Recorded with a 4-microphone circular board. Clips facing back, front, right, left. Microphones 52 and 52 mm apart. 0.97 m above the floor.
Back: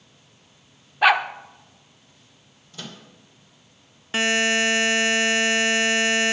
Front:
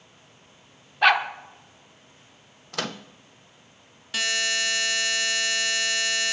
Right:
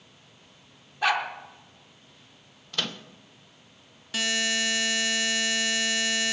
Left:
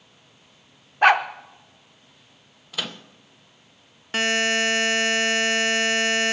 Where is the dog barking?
100° left, 0.7 m.